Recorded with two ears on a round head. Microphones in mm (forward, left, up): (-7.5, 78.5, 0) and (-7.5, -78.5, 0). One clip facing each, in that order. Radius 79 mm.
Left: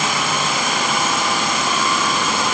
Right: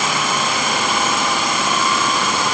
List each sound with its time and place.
Only background noise.